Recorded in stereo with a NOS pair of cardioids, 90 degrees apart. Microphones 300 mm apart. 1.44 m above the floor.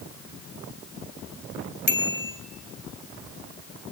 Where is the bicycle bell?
35° left, 3 m.